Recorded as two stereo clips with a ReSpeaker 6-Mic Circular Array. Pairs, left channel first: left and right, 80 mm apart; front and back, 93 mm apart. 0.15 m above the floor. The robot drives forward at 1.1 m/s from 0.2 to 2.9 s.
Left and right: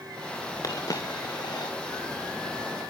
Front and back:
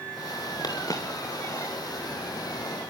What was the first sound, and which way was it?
A dropped coin, 45° left.